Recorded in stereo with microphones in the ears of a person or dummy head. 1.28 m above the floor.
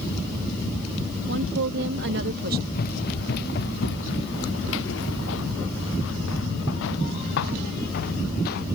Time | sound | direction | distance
1.3 | a woman speaking | 75° right (ahead or behind) | ?
2.7 | running footsteps | 55° left (ahead or behind) | ?